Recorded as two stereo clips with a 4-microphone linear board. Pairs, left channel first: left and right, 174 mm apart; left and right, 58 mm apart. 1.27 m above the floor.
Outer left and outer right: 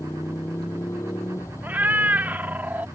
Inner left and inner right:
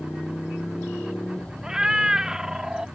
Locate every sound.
0.0 s a motorcycle: 15° left (ahead or behind)
1.6 s a cat meowing: 10° right (ahead or behind)